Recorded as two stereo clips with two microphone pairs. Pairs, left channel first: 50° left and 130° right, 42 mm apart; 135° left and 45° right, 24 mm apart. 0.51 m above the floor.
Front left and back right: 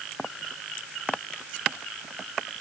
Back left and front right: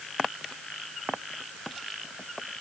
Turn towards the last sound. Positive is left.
No sound to turn to.